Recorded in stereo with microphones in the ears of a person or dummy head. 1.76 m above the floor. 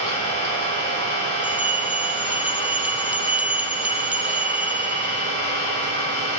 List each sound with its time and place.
0.0 s an engine running: 25° left (ahead or behind), 4 m
1.4 s a bell: 10° right (ahead or behind), 0.5 m